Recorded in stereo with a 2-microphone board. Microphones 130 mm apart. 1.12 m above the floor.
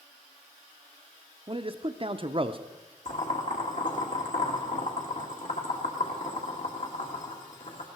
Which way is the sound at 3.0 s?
65° left (ahead or behind).